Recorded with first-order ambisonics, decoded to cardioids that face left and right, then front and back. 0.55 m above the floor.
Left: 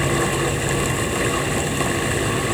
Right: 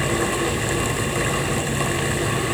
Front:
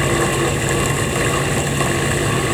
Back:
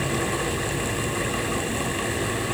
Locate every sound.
Only background noise.